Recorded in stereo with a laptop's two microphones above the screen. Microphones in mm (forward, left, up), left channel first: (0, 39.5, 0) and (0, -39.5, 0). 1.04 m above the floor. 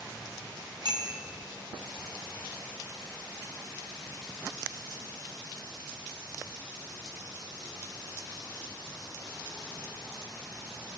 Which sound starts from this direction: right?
A bicycle bell, at 0.8 s.